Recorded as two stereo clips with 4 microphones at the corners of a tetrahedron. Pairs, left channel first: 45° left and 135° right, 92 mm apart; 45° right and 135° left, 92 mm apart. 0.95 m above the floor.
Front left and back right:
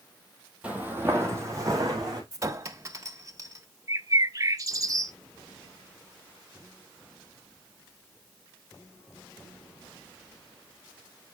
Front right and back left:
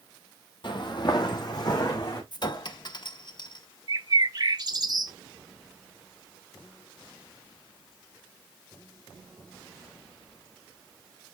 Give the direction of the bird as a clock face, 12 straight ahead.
6 o'clock.